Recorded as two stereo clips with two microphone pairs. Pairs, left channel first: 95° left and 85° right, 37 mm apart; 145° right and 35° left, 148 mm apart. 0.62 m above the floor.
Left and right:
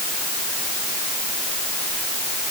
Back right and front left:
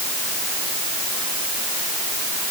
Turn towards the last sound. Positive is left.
No sound to turn to.